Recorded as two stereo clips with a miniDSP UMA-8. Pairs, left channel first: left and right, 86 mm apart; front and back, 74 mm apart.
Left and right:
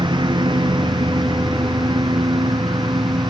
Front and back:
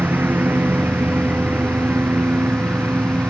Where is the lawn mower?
115° right.